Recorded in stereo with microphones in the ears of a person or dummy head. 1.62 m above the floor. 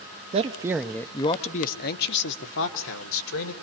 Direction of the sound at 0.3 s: 30° right (ahead or behind).